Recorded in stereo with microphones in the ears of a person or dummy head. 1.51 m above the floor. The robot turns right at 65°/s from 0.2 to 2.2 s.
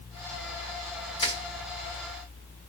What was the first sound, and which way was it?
Crushing, 30° left (ahead or behind).